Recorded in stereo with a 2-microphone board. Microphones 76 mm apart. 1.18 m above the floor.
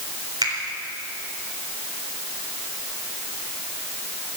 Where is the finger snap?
60° right (ahead or behind), 3.5 m.